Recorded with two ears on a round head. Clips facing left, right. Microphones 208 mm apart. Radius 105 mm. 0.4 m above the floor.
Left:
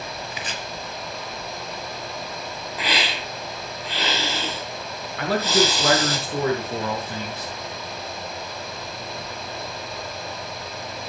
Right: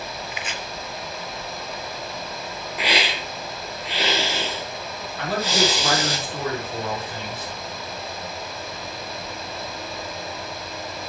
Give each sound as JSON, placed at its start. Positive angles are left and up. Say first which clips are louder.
{"t": 0.3, "sound": "chopping", "louder": "even", "side_deg": 30, "distance_m": 1.6}
{"t": 2.8, "sound": "a hiss", "louder": "right 2 dB", "side_deg": -10, "distance_m": 4.5}
{"t": 5.2, "sound": "a man speaking", "louder": "left 3 dB", "side_deg": 50, "distance_m": 6.5}